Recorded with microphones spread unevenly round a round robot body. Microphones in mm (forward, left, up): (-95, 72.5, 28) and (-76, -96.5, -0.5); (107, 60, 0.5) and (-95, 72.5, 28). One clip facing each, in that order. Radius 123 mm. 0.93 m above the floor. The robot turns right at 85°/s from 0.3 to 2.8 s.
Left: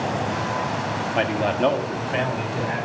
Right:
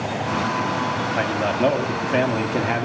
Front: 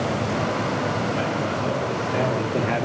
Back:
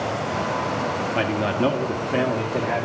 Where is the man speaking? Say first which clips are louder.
Left 1 dB, back 3 dB; 155° left, 1.5 m; by 2.9 s 65° right, 1.5 m.